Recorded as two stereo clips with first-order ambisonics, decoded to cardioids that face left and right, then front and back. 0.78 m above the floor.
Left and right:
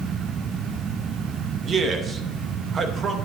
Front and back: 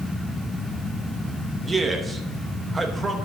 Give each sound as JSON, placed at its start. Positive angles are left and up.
{"t": 1.6, "sound": "a man speaking", "azimuth_deg": -115, "distance_m": 0.8}